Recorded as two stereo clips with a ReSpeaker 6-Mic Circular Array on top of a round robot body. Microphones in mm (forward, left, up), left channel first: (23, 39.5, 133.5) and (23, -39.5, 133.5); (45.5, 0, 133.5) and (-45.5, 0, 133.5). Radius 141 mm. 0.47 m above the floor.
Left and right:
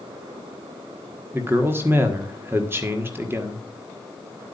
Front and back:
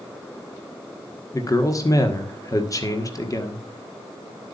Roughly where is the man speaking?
Ahead right.